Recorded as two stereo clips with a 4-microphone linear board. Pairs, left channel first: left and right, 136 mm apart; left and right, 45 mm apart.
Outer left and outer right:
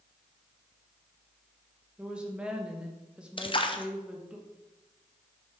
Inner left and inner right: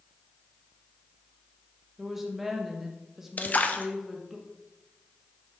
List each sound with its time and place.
2.0 s a woman speaking: 10° right (ahead or behind), 1.2 m
3.4 s a splash: 40° left (ahead or behind), 0.6 m